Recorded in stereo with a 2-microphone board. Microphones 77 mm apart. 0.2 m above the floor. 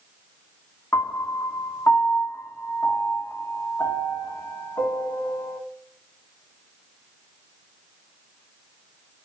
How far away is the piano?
About 0.5 m.